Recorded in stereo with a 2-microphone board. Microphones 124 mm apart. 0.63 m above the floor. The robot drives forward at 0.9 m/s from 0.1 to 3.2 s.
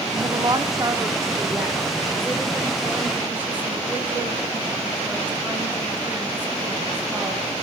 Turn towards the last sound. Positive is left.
turn(degrees=-15)  # may be behind; listen again after turning